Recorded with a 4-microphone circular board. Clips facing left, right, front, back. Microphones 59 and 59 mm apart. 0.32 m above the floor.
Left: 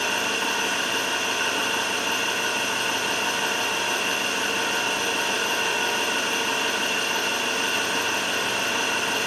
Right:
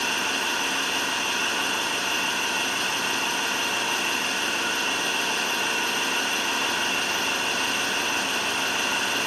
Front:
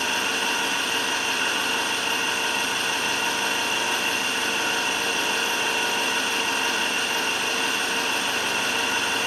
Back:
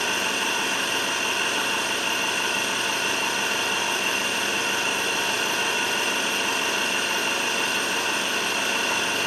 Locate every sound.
0.0 s an engine running: 105° left, 3.5 m